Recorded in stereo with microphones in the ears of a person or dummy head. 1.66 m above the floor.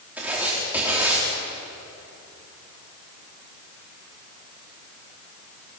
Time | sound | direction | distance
0.2 | writing | 5° right (ahead or behind) | 4 m